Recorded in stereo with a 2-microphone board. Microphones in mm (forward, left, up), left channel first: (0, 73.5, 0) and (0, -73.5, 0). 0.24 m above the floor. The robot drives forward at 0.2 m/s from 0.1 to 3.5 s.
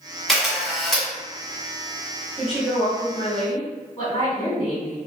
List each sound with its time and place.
0.3 s a camera shutter: centre (ahead or behind), 1.4 m; by 1.1 s 5° left (ahead or behind), 1.2 m
2.4 s a woman speaking: centre (ahead or behind), 1.0 m
4.0 s a woman speaking: 35° left (ahead or behind), 1.9 m